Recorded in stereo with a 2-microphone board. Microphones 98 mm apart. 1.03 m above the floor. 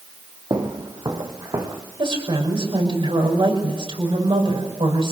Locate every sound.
0.5 s footsteps: 45° right (ahead or behind), 2 m; by 1.8 s 40° right (ahead or behind), 2.5 m
2.0 s a woman speaking: 65° right (ahead or behind), 5.5 m